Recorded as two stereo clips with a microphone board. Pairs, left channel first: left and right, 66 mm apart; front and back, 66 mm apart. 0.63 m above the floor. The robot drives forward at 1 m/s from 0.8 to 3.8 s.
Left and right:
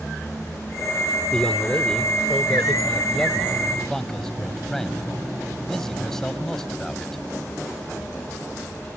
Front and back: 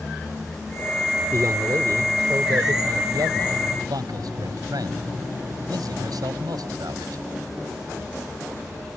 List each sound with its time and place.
1.3 s a man speaking: 165° left; by 7.2 s 175° left